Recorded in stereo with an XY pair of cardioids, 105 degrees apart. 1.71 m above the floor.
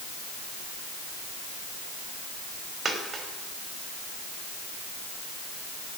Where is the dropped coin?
40° right, 3 m.